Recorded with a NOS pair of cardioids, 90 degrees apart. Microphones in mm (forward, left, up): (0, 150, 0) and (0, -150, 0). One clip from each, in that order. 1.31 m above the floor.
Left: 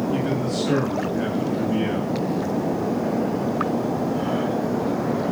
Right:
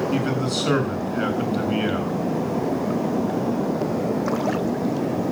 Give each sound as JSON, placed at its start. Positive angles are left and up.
{"t": 0.1, "sound": "a man speaking", "azimuth_deg": -65, "distance_m": 7.5}